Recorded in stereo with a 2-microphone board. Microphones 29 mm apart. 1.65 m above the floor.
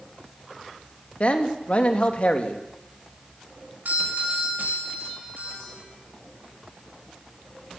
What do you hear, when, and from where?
1.2 s a man speaking: 45° left (ahead or behind), 2.5 m
3.9 s a doorbell: 75° right (ahead or behind), 7 m